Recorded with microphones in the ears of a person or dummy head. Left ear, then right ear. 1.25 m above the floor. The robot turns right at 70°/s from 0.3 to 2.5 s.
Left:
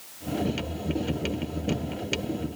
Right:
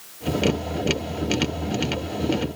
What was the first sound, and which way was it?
Only background noise.